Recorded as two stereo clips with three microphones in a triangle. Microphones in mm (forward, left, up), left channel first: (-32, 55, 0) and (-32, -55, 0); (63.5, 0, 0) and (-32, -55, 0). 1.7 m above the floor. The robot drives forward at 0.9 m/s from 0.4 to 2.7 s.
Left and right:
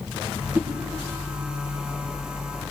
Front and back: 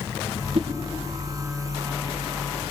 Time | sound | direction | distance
0.6 | a whoosh | 165° right | 1.7 m